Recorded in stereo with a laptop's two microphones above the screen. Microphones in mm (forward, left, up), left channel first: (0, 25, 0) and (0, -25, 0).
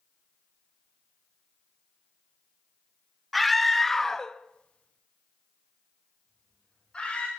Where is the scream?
Centre (ahead or behind), 1.6 m; by 7.3 s 20° left (ahead or behind), 2 m.